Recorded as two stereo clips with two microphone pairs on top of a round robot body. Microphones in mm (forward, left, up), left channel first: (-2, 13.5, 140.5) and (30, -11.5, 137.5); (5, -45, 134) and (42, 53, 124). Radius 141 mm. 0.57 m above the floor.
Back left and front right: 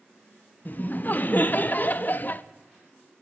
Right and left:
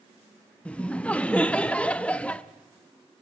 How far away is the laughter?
About 0.7 m.